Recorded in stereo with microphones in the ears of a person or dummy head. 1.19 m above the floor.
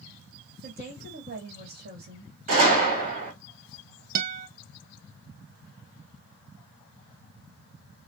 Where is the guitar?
50° right (ahead or behind), 0.5 m.